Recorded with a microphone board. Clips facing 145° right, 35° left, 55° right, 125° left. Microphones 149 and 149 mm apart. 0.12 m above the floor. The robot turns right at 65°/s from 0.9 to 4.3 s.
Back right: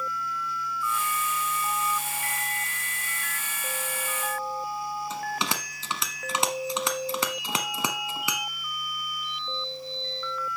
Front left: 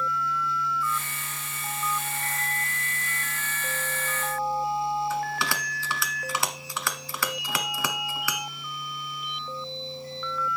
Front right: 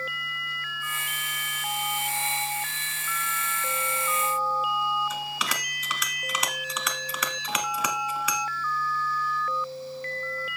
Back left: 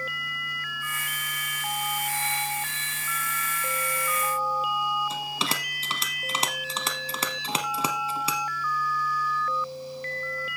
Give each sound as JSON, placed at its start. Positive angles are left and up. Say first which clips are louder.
{"t": 5.1, "sound": "a bell", "louder": "front left 2 dB, back left 1 dB", "azimuth_deg": 160, "distance_m": 1.1}